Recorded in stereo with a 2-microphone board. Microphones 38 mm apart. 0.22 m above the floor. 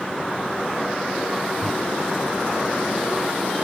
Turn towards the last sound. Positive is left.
turn(degrees=0)  # may be behind; listen again after turning